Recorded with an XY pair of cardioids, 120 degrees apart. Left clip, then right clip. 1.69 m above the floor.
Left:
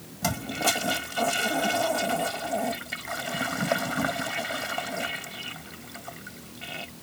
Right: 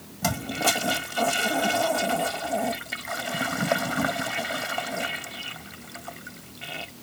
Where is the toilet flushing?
10° right.